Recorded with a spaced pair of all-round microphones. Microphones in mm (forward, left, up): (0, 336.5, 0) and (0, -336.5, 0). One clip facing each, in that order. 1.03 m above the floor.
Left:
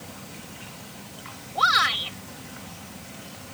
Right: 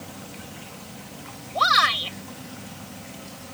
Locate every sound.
1.6 s a shout: 10° right (ahead or behind)